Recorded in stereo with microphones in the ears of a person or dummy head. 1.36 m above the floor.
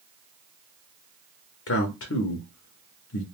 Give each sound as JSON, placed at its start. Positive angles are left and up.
{"t": 1.7, "sound": "a man speaking", "side_deg": 60, "distance_m": 0.7}